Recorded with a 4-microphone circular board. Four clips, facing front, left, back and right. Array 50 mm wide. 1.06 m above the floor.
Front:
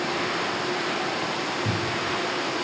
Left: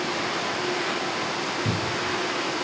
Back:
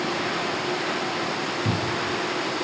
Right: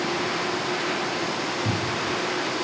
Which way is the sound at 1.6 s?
125° left.